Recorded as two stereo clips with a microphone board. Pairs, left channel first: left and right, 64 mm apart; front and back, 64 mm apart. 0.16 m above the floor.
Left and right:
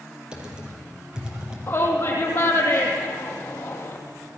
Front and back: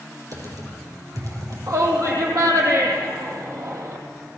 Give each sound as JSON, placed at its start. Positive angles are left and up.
{"t": 0.3, "sound": "typing on a keyboard", "azimuth_deg": -165, "distance_m": 5.0}
{"t": 1.7, "sound": "a shout", "azimuth_deg": 145, "distance_m": 5.0}